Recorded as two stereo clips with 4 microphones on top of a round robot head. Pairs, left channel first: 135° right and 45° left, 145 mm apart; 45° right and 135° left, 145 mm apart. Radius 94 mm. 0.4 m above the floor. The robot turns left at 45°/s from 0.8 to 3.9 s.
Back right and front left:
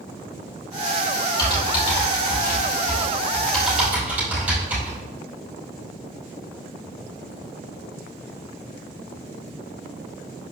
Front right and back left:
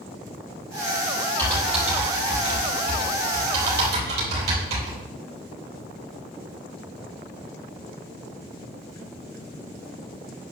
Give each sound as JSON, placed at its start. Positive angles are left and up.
{"t": 1.4, "sound": "typing on a keyboard", "azimuth_deg": -120, "distance_m": 4.0}